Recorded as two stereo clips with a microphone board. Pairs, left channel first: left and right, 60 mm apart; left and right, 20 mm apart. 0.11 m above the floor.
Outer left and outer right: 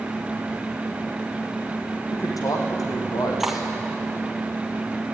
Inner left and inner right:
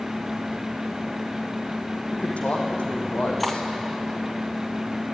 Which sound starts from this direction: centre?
Cutlery clinking, at 3.4 s.